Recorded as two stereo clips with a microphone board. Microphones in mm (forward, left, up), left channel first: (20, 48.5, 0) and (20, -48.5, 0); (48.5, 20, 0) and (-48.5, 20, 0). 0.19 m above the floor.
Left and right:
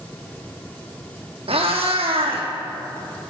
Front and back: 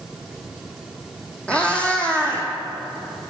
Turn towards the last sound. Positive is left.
turn(degrees=-80)